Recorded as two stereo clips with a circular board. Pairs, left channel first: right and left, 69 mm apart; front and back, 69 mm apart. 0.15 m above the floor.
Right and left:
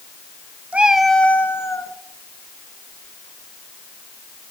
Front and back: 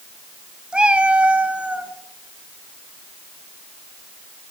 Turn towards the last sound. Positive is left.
turn(degrees=-110)